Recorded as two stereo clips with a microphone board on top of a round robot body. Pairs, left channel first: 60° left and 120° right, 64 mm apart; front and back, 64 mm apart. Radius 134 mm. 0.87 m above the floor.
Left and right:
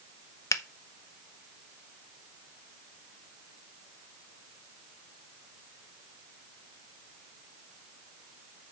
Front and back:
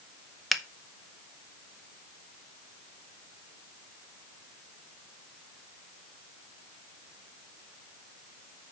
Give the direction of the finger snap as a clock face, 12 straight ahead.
9 o'clock.